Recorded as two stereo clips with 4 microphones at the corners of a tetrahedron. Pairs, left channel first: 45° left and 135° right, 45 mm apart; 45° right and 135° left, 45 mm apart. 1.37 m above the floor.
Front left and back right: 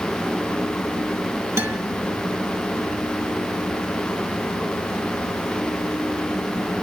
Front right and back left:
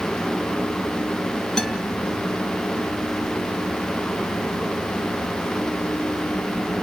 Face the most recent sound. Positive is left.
turn(degrees=-125)